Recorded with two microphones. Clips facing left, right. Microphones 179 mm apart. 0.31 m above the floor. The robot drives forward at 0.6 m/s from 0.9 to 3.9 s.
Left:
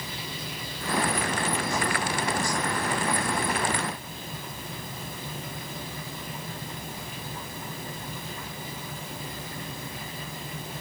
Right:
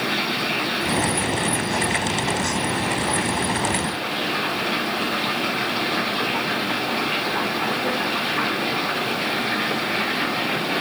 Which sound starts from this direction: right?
Running water, at 0.0 s.